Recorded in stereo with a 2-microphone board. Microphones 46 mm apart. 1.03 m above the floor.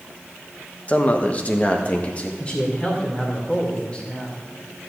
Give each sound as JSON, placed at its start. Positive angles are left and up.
{"t": 0.9, "sound": "a man speaking", "side_deg": 30, "distance_m": 0.9}
{"t": 2.4, "sound": "a man speaking", "side_deg": 20, "distance_m": 2.5}